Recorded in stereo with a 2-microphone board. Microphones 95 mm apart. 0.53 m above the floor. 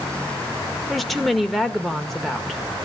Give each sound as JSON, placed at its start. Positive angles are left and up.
{"t": 0.9, "sound": "a woman speaking", "side_deg": 0, "distance_m": 1.3}